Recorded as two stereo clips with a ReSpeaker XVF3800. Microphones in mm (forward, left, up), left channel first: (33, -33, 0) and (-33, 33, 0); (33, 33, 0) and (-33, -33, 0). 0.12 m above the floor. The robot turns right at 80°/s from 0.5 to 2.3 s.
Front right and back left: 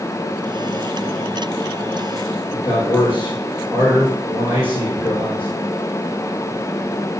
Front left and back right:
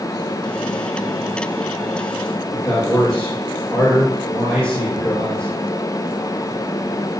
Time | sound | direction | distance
2.5 | a man speaking | 35° right | 6 m